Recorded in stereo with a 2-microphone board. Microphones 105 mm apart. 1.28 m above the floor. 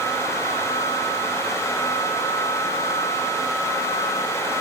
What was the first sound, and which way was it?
Only background noise.